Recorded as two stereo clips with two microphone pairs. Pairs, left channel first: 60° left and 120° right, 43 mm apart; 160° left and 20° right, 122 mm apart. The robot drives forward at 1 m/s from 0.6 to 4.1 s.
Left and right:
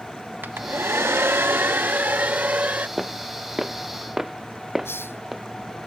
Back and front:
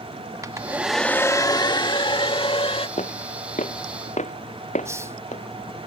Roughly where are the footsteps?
Behind left.